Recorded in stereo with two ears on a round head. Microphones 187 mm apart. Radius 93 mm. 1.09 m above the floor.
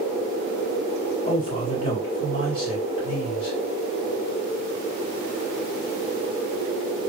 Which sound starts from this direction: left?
A man speaking, at 1.3 s.